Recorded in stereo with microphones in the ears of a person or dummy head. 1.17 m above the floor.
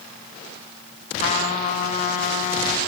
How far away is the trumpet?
About 1.6 m.